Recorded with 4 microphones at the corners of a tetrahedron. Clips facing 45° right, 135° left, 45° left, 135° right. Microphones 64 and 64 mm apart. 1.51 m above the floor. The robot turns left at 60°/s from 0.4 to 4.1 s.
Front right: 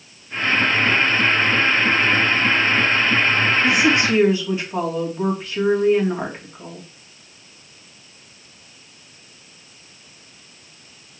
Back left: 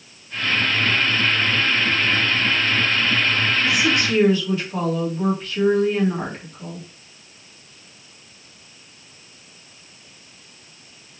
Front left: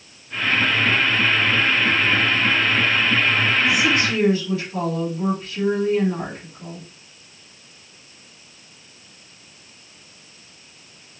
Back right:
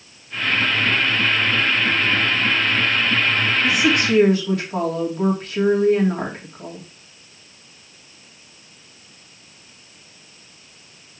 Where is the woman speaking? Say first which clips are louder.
Front right 3 dB, back right 1 dB; 90° right, 1.9 m; by 6.9 s 120° right, 1.9 m.